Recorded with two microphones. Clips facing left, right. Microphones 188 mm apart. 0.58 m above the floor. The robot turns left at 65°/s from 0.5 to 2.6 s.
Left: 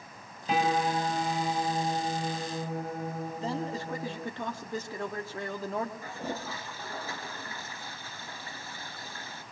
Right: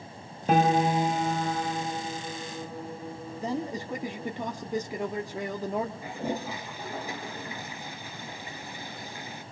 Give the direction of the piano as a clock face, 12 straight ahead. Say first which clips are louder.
Right 5 dB; 4 o'clock.